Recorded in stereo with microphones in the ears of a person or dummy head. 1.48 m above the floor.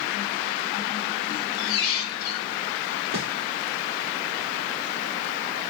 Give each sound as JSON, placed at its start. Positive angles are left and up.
{"t": 1.3, "sound": "a squeak", "side_deg": 55, "distance_m": 0.8}
{"t": 3.1, "sound": "a snare drum", "side_deg": -15, "distance_m": 1.5}